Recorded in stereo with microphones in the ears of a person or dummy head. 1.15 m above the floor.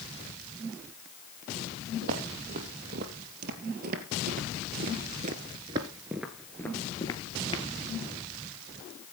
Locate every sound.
2.0 s footsteps: 60° right (ahead or behind), 3 m; by 7.6 s 25° left (ahead or behind), 1.7 m